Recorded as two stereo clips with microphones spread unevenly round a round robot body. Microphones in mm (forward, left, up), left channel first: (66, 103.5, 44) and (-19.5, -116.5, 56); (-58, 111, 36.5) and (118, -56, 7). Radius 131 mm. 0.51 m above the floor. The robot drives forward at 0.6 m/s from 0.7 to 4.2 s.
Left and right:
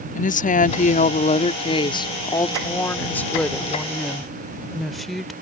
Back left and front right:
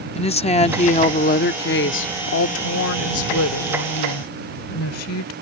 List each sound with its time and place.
0.1 s a woman speaking: 80° left; by 5.3 s 155° left